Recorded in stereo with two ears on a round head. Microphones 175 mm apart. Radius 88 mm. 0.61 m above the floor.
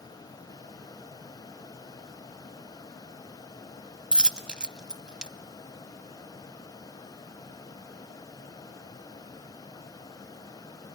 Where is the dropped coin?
5° right (ahead or behind), 0.7 m.